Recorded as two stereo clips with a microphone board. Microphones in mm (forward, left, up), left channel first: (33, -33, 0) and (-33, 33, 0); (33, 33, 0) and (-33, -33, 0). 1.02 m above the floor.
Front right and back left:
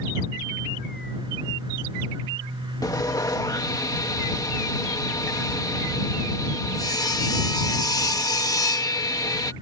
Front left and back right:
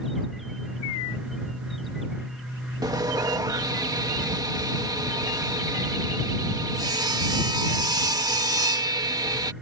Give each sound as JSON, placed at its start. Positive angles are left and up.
{"t": 2.8, "sound": "sawing", "azimuth_deg": -90}